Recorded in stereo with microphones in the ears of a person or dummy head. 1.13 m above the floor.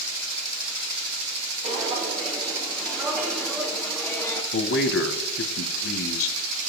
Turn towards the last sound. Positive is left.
turn(degrees=75)  # may be behind; listen again after turning